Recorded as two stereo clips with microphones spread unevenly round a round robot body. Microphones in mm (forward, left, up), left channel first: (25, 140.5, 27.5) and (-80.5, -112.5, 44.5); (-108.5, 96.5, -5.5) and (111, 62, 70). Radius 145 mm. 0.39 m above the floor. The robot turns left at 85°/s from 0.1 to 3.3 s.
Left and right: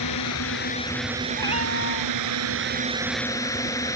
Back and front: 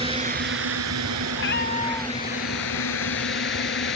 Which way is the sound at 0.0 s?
55° left.